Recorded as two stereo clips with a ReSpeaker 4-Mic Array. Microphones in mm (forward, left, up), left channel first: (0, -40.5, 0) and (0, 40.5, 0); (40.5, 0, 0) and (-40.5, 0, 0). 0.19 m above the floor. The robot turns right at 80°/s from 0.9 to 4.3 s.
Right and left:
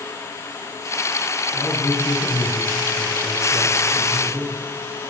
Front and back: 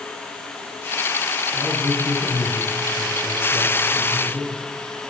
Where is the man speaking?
125° right, 7 m; by 4.6 s 95° left, 7 m.